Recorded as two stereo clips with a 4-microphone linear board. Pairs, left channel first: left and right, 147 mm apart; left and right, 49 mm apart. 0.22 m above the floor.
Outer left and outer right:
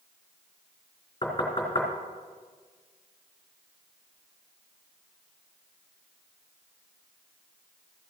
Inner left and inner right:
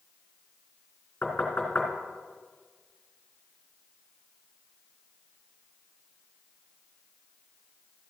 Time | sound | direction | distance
1.2 | knocking | 35° left (ahead or behind) | 3 m